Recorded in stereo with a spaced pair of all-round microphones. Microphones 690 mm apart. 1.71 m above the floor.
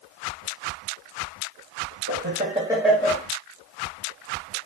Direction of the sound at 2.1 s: 20° right (ahead or behind).